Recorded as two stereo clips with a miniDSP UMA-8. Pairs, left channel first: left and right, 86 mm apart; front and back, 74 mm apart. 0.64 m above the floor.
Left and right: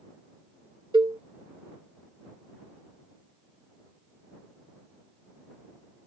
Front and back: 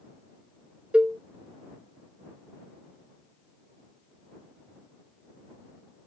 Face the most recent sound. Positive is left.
turn(degrees=-105)